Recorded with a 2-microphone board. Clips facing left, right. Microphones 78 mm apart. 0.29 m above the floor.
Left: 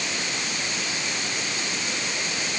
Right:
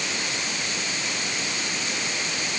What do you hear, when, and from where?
Only background noise.